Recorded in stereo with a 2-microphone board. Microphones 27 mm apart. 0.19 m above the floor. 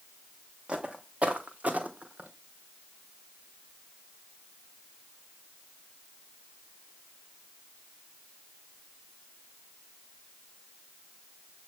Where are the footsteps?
45° right (ahead or behind), 1.2 m; by 2.3 s 85° right, 1.1 m.